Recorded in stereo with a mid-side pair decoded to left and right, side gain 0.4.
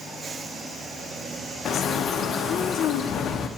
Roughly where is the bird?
Ahead left.